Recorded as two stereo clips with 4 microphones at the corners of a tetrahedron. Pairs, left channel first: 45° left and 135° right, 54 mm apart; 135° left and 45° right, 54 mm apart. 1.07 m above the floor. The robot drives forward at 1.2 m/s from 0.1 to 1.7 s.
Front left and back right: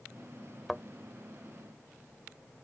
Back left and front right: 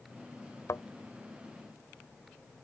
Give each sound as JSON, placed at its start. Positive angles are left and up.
{"t": 0.7, "sound": "a thud", "azimuth_deg": 135}